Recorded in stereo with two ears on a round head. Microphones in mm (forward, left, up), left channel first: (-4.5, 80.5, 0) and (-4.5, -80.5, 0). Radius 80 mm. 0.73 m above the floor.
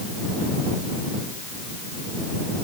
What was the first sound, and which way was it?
Only background noise.